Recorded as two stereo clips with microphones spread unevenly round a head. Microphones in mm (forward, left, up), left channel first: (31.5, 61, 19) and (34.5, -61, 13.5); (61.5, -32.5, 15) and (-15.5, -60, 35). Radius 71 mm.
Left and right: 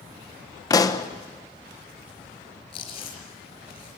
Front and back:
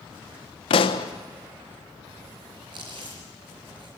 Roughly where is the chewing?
Behind left.